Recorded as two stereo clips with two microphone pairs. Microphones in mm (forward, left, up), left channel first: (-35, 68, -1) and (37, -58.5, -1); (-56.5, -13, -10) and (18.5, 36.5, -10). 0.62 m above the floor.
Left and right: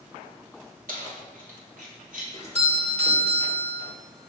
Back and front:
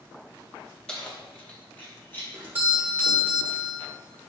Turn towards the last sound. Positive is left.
turn(degrees=-30)